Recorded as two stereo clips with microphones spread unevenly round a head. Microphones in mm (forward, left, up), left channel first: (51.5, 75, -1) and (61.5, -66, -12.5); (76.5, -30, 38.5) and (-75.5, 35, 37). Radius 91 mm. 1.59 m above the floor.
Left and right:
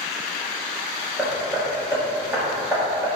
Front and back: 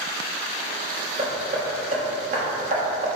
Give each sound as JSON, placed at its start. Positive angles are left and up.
{"t": 1.2, "sound": "hammering", "azimuth_deg": -165, "distance_m": 1.3}